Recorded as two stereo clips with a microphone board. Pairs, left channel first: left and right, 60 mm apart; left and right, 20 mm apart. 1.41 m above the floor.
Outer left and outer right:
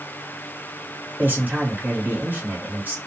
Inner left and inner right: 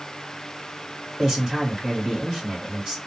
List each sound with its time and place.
1.2 s a man speaking: 35° right (ahead or behind), 2 m